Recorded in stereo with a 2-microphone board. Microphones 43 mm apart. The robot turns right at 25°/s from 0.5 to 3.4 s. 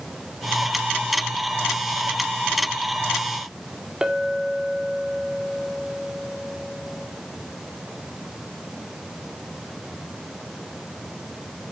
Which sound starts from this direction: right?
A clink, at 4.0 s.